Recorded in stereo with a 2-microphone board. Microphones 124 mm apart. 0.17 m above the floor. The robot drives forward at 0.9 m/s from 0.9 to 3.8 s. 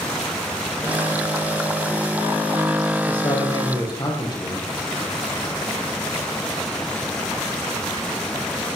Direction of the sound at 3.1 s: 40° left (ahead or behind).